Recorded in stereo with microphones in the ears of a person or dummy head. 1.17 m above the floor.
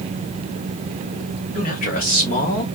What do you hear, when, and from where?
1.6 s a man speaking: 40° left (ahead or behind), 3 m; by 2.7 s 50° left (ahead or behind), 2 m